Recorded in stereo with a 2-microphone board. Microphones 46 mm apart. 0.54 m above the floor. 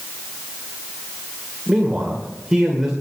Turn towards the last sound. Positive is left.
turn(degrees=-10)  # may be behind; listen again after turning